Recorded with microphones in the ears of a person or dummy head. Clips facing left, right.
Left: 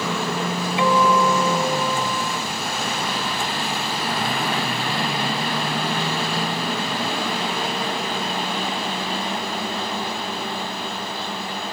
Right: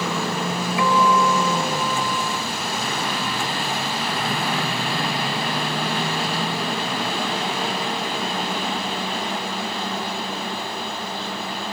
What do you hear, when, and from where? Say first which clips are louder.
0.8 s a guitar: left 1 dB; 20° left (ahead or behind)